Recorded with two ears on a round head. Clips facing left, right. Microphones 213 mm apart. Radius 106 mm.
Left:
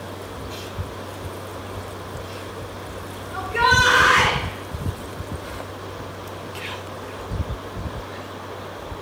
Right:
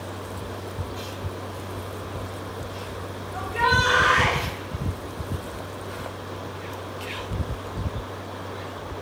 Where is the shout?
65° left (ahead or behind), 3 m.